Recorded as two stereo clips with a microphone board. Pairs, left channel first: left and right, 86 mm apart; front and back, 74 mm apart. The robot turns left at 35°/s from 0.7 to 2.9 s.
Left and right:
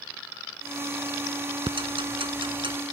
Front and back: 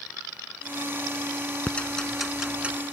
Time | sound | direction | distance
1.7 | ticking | 70° right | ?